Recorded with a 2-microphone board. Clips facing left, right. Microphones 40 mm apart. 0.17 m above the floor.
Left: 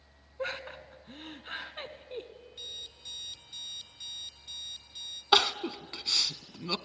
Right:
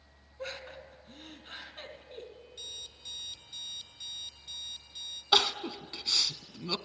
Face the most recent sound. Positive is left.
turn(degrees=25)  # may be behind; listen again after turning